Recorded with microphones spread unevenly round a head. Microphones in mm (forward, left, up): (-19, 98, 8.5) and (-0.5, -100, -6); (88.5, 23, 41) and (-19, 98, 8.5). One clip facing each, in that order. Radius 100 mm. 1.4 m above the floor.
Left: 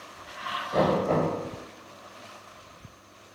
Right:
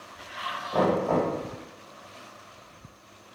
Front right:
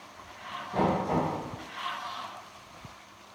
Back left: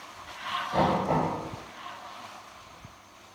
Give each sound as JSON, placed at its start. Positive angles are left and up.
{"t": 0.7, "sound": "knocking", "azimuth_deg": 165, "distance_m": 1.5}